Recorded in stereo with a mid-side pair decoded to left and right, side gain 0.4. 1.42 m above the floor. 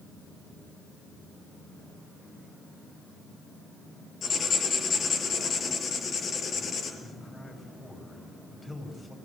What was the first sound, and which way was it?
Writing, 55° left.